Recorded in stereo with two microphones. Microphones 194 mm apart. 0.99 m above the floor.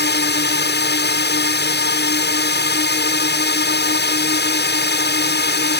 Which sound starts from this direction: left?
A drone, at 0.0 s.